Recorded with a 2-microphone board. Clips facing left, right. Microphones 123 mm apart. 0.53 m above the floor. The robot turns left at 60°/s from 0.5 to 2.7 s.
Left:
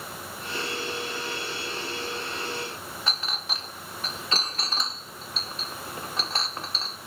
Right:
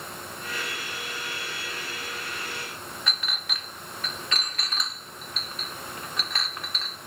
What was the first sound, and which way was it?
A clink, 30° left (ahead or behind).